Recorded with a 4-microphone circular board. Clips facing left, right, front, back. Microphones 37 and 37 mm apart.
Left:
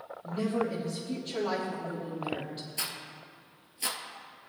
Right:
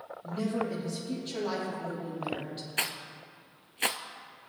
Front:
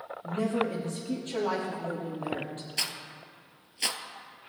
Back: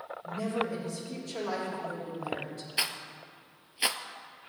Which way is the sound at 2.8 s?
110° right.